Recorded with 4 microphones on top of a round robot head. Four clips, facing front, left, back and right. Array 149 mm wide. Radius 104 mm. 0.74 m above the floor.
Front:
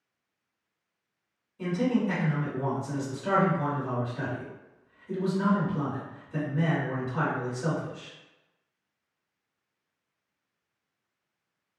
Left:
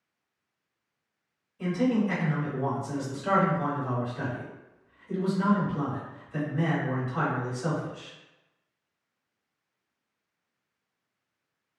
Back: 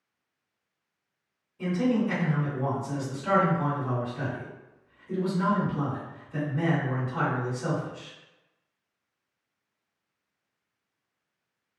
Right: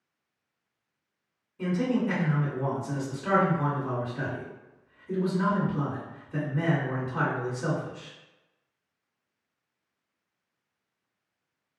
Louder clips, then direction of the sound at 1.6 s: Left 1 dB, back 1 dB; 70° right.